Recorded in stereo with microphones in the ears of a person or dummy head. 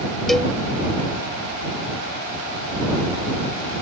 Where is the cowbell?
Centre (ahead or behind).